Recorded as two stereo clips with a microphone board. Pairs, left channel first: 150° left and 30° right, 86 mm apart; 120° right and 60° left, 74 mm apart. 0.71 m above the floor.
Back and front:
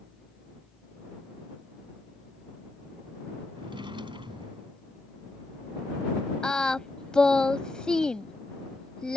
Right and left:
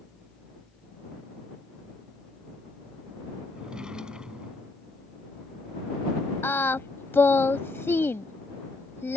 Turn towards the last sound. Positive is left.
turn(degrees=-135)